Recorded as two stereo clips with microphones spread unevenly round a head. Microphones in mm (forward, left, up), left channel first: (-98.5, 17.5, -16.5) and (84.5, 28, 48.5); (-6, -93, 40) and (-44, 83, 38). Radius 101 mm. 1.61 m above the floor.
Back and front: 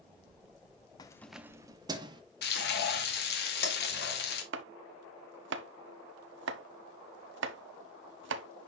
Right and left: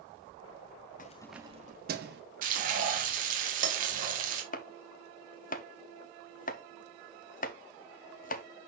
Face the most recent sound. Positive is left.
turn(degrees=-30)